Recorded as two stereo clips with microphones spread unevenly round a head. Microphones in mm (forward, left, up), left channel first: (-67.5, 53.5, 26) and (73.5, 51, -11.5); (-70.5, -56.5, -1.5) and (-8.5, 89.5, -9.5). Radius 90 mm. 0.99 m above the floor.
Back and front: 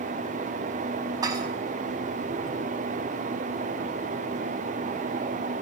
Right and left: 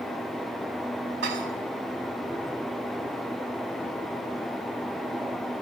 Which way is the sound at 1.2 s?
65° left.